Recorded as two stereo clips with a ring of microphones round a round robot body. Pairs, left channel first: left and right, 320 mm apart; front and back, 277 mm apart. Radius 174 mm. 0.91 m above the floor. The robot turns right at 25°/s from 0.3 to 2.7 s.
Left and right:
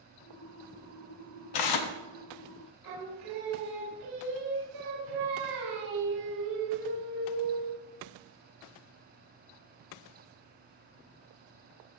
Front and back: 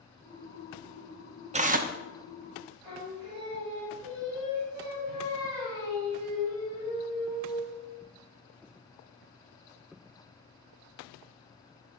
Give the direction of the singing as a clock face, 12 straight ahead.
3 o'clock.